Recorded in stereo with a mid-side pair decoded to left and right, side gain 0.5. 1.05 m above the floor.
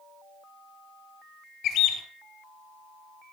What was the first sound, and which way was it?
A bird, 70° left.